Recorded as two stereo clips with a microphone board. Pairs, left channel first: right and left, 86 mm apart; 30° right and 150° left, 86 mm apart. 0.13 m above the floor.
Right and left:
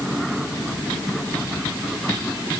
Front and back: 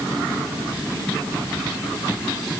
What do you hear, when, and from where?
Only background noise.